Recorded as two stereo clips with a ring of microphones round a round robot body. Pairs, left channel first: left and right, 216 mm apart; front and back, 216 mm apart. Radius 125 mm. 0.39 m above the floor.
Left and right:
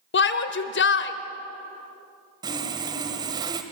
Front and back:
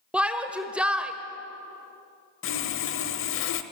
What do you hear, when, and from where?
0.1 s a shout: 95° left, 1.5 m
2.4 s sawing: 20° right, 1.2 m